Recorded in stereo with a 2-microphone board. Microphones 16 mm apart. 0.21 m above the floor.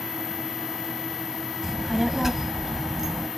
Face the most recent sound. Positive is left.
turn(degrees=-20)  # may be behind; listen again after turning